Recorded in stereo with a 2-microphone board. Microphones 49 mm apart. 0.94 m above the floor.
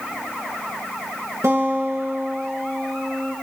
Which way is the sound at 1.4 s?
75° right (ahead or behind).